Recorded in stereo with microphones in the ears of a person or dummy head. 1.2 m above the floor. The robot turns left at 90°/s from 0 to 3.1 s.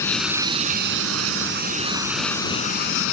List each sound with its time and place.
0.0 s running water: 15° left; by 3.1 s 100° left